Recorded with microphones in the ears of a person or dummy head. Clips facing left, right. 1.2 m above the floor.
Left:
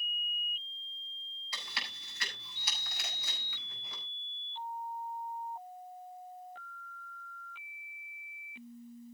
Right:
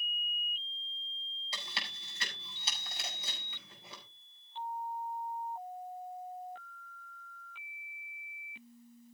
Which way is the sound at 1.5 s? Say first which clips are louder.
Right 1 dB; 20° right (ahead or behind).